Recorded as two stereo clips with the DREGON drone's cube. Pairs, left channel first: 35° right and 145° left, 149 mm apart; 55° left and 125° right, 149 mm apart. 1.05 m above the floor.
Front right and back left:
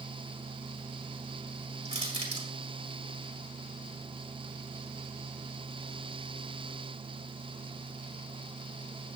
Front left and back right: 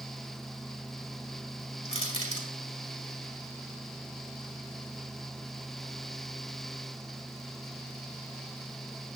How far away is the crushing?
About 3.5 m.